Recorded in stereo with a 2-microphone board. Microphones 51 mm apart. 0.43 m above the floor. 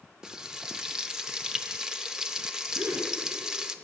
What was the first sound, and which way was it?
Frying, 10° right (ahead or behind).